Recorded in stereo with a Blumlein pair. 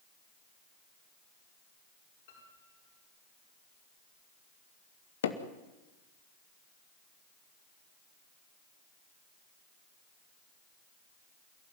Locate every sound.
2.3 s a piano: 55° left, 8 m
5.2 s hammering: 60° left, 2.0 m